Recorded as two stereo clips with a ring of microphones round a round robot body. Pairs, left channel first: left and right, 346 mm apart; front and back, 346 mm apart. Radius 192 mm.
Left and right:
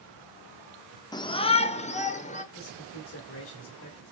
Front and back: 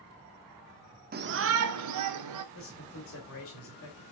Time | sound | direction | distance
1.1 | a shout | 155° left | 0.7 m
2.5 | a man speaking | 45° left | 2.5 m